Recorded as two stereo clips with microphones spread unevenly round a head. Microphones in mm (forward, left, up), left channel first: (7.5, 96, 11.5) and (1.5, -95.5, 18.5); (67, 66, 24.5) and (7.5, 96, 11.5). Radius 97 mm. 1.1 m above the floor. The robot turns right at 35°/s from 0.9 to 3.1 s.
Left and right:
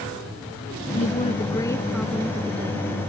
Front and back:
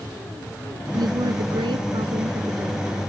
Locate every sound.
0.9 s a woman speaking: 140° left; by 2.9 s 155° right